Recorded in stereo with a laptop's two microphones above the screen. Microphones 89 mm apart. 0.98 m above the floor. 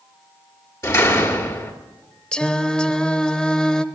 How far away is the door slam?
About 1.8 m.